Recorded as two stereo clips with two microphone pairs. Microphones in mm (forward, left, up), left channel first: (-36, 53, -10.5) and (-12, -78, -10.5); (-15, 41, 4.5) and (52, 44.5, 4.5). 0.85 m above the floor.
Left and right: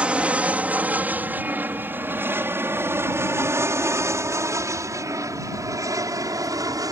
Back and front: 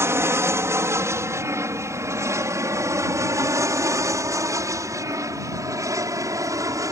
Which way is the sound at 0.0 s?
5° right.